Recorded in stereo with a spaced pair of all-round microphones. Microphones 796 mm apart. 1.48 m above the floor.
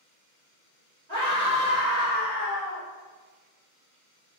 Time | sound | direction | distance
1.1 | a scream | 55° right (ahead or behind) | 1.9 m